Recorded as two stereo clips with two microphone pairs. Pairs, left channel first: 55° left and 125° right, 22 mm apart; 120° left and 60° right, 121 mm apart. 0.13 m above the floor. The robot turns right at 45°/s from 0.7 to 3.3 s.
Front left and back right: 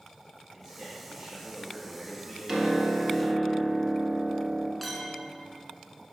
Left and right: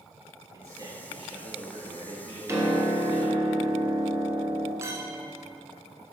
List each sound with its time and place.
0.5 s a man speaking: 115° right, 2 m; by 3.4 s straight ahead, 2 m
2.5 s a piano: 95° right, 1.1 m; by 4.7 s 60° right, 1.1 m
4.8 s a clink: 40° right, 0.8 m